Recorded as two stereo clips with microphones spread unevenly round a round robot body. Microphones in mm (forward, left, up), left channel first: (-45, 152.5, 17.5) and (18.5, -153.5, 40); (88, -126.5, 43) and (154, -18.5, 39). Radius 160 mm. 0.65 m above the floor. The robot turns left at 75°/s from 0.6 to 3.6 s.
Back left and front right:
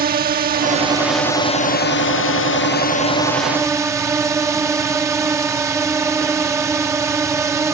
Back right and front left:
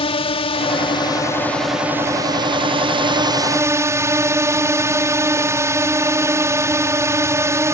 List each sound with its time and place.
0.0 s a drone: 130° right; by 7.8 s 5° left